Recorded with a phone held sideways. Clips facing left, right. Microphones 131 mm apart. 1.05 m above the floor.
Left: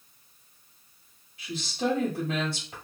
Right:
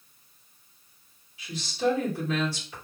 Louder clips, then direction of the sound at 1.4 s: Right 1 dB; 45° left (ahead or behind).